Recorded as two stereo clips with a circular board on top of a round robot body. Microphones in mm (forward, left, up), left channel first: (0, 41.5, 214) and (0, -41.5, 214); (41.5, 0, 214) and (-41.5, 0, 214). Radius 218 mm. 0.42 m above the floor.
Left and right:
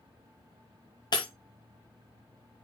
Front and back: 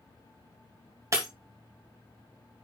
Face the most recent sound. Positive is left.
turn(degrees=125)